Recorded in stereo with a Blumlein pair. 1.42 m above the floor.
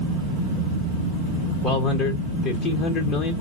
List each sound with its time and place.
1.6 s a man speaking: 30° left, 1.0 m